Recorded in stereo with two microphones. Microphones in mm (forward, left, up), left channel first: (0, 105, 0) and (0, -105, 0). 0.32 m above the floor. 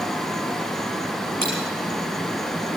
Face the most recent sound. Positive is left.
turn(degrees=65)  # may be behind; listen again after turning